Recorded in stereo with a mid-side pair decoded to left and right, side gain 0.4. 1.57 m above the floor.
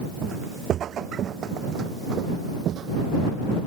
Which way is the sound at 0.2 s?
70° right.